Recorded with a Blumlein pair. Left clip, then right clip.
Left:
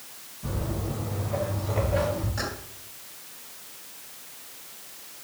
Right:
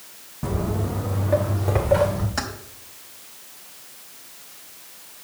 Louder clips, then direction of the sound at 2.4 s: Right 6 dB; 30° right.